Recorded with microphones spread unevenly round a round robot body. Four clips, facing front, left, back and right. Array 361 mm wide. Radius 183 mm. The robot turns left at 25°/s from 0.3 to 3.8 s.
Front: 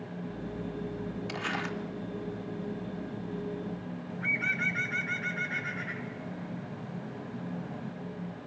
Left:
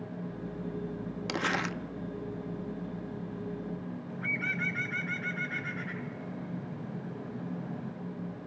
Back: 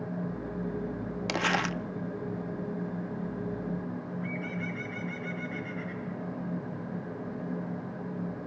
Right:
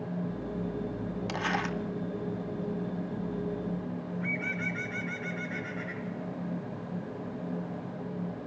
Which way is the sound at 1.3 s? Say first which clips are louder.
Even, back 8 dB; 135° left.